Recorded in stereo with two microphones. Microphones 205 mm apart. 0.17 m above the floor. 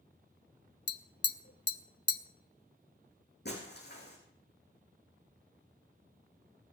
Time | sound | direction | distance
0.9 | tapping | 55° left (ahead or behind) | 0.6 m
3.5 | breaking glass | 55° left (ahead or behind) | 4.5 m